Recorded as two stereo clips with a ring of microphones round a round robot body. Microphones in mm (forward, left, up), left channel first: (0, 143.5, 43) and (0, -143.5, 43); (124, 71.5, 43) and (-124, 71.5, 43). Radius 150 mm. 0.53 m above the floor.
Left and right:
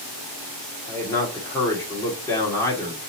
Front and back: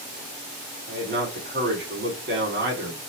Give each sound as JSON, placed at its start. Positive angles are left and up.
{"t": 0.9, "sound": "a man speaking", "azimuth_deg": 165, "distance_m": 1.7}